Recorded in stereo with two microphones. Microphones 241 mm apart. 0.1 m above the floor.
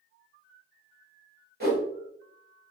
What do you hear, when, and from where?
1.6 s a whoosh: 45° right (ahead or behind), 1.8 m